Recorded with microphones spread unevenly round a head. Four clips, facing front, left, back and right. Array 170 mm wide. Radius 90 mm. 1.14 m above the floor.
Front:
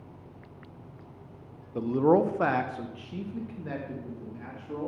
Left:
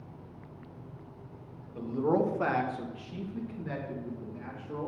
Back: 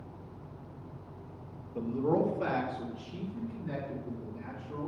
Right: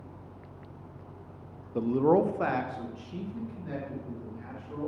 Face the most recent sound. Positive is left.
turn(degrees=20)